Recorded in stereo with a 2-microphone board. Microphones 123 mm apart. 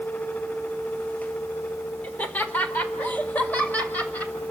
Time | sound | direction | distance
2.0 | laughter | 10° left (ahead or behind) | 1.5 m